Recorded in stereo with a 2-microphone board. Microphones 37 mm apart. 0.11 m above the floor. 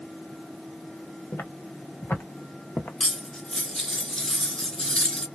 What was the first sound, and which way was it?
Footsteps, 85° left.